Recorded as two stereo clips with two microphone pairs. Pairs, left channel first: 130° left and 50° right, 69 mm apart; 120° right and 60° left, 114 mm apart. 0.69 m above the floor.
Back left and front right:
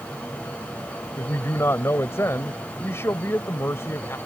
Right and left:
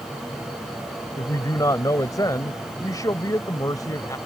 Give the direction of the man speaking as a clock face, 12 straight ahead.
6 o'clock.